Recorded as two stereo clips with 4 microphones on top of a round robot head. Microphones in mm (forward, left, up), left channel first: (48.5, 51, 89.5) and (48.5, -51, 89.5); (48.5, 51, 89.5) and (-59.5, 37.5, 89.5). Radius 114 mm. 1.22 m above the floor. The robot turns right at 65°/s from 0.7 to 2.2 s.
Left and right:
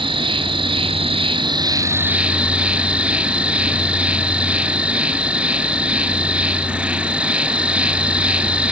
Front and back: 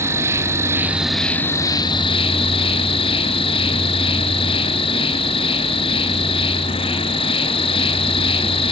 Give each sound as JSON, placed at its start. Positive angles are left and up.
{"t": 0.0, "sound": "an insect", "azimuth_deg": -110, "distance_m": 1.3}